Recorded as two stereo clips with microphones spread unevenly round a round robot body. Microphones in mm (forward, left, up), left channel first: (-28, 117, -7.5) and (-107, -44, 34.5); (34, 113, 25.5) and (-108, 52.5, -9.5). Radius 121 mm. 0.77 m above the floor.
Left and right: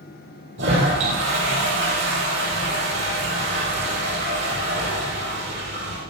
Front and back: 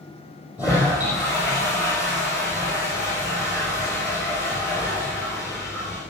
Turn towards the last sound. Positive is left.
turn(degrees=-70)